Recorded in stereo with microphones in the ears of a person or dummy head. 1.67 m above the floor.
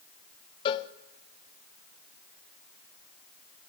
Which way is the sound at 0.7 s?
30° left (ahead or behind).